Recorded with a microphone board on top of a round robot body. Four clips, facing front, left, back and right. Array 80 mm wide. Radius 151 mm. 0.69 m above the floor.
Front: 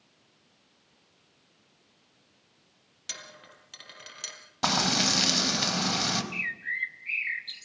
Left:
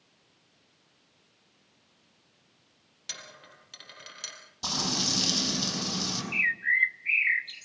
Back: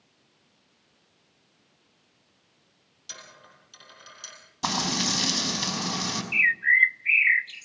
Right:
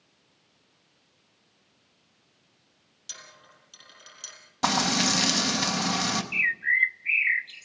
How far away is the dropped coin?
About 6 m.